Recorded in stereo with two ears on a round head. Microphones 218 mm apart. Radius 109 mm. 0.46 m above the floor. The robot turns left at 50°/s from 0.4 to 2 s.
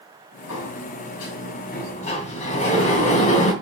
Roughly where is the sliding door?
Left.